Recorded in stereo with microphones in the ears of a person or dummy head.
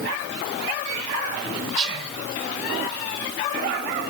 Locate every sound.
1.8 s whispering: 35° right (ahead or behind), 2 m